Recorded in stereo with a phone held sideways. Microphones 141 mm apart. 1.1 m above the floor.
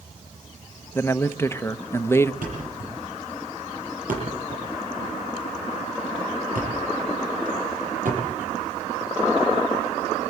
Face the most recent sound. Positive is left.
turn(degrees=-75)  # may be behind; listen again after turning